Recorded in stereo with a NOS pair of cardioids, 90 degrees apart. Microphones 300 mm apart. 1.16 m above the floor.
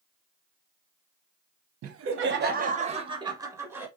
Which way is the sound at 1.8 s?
55° right.